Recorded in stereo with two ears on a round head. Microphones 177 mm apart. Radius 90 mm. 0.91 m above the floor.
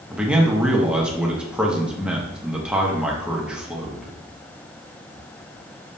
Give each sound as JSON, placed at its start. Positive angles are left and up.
{"t": 0.1, "sound": "a man speaking", "side_deg": -5, "distance_m": 0.8}